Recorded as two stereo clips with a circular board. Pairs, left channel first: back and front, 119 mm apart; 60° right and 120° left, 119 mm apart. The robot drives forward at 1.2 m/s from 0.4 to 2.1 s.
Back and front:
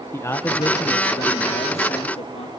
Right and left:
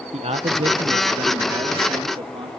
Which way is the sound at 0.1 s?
115° left.